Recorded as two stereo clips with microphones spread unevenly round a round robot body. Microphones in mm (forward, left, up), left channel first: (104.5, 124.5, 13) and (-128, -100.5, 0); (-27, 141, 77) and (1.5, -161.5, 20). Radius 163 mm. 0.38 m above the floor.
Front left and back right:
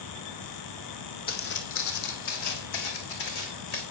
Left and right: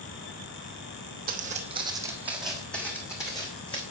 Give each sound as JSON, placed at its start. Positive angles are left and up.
{"t": 1.3, "sound": "footsteps", "azimuth_deg": -20, "distance_m": 1.2}